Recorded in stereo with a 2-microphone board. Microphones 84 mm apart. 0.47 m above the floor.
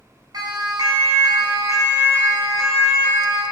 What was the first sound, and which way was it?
A siren, 50° right (ahead or behind).